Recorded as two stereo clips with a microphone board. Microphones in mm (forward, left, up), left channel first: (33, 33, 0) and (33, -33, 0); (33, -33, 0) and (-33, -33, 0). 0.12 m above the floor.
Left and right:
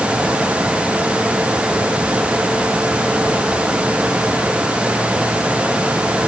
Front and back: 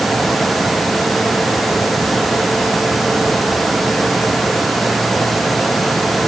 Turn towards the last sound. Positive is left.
No sound to turn to.